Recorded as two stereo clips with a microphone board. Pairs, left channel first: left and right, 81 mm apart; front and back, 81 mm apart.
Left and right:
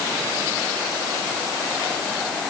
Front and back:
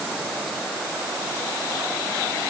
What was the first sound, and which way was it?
Only background noise.